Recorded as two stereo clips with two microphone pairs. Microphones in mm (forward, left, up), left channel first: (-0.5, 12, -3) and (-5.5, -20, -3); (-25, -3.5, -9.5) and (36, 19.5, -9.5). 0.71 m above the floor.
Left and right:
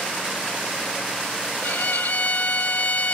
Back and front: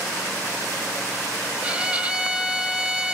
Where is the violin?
90° left, 0.9 m.